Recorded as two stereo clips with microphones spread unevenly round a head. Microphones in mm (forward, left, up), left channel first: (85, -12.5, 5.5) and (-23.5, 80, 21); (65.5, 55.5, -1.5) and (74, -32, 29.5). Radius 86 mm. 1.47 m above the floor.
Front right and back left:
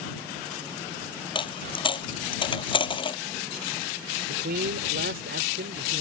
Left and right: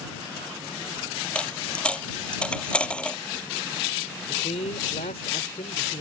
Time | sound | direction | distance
1.4 | a dropped coin | 15° left | ?
4.3 | a man speaking | 130° left | ?